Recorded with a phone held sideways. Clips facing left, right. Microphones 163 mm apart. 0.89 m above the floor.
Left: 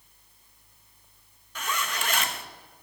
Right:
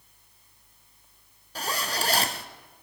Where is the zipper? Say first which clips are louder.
Right 2 dB; 35° right (ahead or behind), 0.5 m.